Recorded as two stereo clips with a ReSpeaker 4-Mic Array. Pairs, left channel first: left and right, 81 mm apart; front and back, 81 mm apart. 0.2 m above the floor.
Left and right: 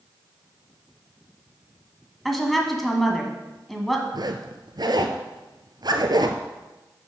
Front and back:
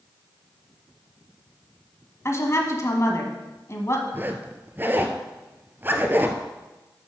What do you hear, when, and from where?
2.2 s a woman speaking: straight ahead, 1.5 m
4.1 s a zipper: 115° right, 0.9 m